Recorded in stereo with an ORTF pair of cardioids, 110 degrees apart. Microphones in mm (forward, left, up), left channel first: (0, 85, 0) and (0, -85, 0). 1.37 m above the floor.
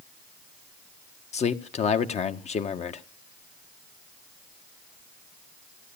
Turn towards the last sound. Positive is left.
turn(degrees=40)